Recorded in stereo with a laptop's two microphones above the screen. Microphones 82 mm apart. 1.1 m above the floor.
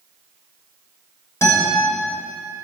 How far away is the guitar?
About 5.5 m.